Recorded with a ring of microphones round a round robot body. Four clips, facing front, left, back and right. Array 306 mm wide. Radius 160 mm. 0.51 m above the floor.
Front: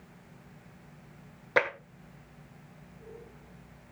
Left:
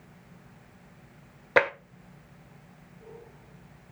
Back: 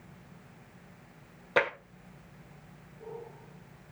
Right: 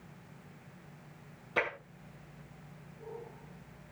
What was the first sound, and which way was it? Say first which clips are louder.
Tapping: left 11 dB, even; 85° left.